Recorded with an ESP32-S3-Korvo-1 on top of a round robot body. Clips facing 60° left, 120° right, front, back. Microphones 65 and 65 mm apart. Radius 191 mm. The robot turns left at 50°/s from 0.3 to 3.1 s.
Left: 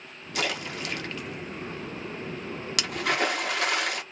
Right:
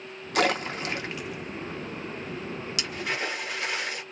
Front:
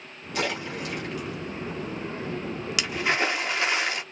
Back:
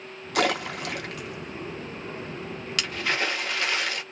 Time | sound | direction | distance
0.3 | a splash | 155° right | 1.5 m